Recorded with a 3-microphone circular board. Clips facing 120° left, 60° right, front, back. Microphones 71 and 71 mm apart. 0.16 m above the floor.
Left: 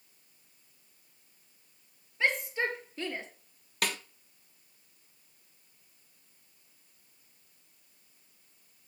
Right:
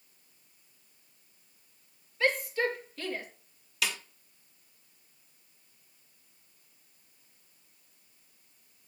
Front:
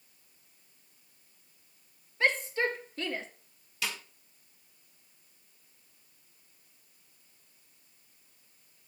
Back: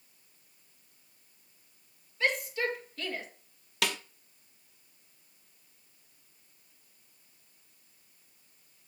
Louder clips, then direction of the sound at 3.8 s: Left 1 dB, back 5 dB; 160° left.